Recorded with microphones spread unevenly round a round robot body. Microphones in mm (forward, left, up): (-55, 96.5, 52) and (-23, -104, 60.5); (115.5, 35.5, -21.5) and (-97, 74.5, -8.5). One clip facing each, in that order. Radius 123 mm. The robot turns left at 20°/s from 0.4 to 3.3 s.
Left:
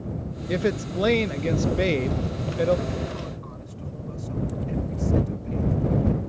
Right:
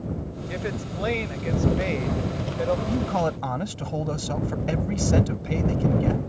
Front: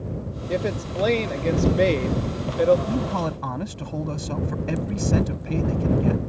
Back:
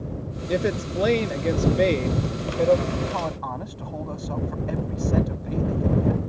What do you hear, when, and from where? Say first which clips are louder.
0.5 s a woman speaking: left 8 dB, back 2 dB; 100° left; by 2.8 s 55° left
2.9 s a man speaking: right 7 dB, front 3 dB; 65° right; by 6.2 s 75° right